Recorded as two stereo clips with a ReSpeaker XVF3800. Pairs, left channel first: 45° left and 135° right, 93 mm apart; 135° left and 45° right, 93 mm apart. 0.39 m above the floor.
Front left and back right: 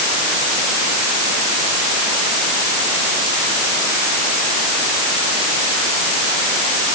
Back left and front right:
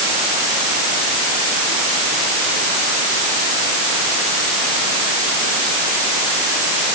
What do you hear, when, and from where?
Only background noise.